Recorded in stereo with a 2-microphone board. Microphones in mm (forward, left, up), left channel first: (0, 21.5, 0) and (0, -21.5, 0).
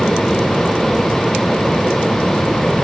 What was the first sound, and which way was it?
Only background noise.